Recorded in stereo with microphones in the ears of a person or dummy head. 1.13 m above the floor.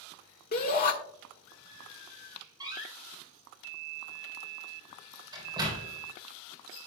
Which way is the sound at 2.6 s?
20° right (ahead or behind).